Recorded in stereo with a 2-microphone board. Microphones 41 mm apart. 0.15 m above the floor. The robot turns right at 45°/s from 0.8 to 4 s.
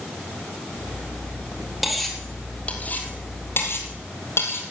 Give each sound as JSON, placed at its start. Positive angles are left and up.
{"t": 1.8, "sound": "cutlery clinking", "side_deg": -5, "distance_m": 2.5}